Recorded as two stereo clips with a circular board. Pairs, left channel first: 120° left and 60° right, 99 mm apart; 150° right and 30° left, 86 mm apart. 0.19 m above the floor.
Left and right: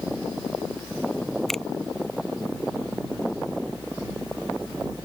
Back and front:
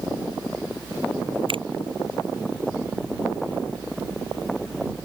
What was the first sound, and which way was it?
A finger snap, 30° left.